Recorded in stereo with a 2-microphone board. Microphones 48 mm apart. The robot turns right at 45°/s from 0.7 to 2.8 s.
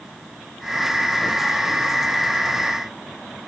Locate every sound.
Only background noise.